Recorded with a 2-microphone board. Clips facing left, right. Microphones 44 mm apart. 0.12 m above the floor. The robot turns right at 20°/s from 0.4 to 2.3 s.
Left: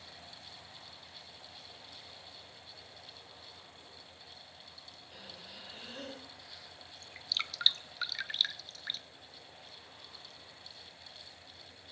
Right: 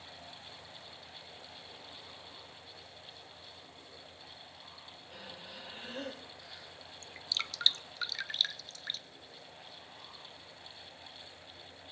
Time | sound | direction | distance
5.1 | breathing | 5° right (ahead or behind) | 6 m
7.0 | dripping | 5° left (ahead or behind) | 0.5 m